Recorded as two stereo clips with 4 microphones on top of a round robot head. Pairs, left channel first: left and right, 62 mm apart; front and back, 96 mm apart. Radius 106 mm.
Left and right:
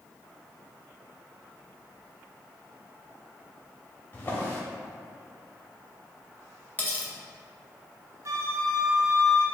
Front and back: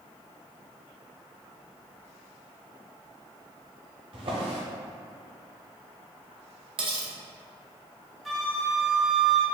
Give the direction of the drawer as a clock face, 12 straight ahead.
7 o'clock.